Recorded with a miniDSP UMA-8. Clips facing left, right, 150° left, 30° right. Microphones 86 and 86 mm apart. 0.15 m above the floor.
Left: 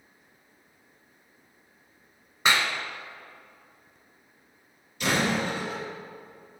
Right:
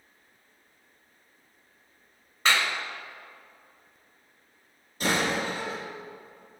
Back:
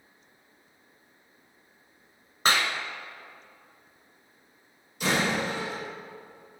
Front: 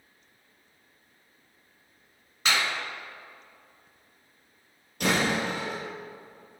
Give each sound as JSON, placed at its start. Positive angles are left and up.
{"t": 2.5, "sound": "a clap", "azimuth_deg": 155, "distance_m": 1.0}
{"t": 5.0, "sound": "a door slam", "azimuth_deg": -40, "distance_m": 2.5}